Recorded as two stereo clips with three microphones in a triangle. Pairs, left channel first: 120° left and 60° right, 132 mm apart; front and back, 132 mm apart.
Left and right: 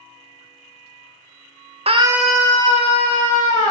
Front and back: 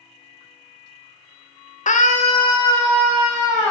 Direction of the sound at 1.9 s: 20° right.